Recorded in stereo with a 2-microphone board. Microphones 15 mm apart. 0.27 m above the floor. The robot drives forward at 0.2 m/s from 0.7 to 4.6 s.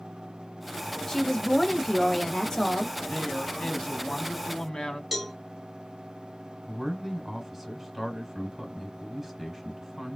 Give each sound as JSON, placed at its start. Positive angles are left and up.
{"t": 1.1, "sound": "a woman speaking", "side_deg": 30, "distance_m": 1.1}
{"t": 3.1, "sound": "a woman speaking", "side_deg": 55, "distance_m": 1.8}
{"t": 5.1, "sound": "a cowbell", "side_deg": -15, "distance_m": 1.7}
{"t": 6.7, "sound": "a man speaking", "side_deg": -10, "distance_m": 1.8}